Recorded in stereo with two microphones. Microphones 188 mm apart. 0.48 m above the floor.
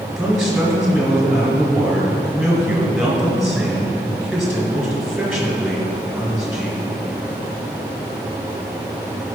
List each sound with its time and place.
0.2 s a man speaking: centre (ahead or behind), 3 m